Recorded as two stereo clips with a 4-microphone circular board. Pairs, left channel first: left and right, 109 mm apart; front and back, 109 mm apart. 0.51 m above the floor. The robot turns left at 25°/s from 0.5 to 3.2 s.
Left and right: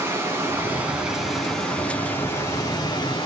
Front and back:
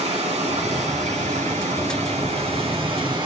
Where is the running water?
160° right, 3.5 m; by 3.3 s 135° left, 3.5 m.